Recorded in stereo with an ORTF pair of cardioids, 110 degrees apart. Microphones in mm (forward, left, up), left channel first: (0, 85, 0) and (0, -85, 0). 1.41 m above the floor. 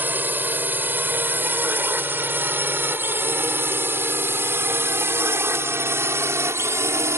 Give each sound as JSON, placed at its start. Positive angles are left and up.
{"t": 0.0, "sound": "a drone", "azimuth_deg": -10}